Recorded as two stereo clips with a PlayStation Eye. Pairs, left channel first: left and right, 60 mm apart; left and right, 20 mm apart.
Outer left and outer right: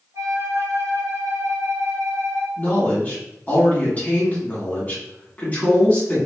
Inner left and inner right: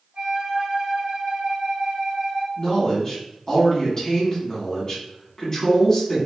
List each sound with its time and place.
0.1 s a flute: 65° right (ahead or behind), 0.9 m
2.6 s a man speaking: 30° left (ahead or behind), 1.5 m